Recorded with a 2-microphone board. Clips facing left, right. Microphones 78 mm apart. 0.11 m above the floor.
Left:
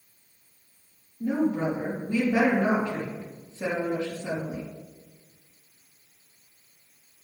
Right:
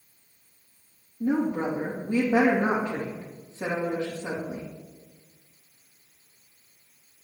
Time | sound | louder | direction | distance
1.2 | a woman speaking | even | 20° right (ahead or behind) | 3.5 m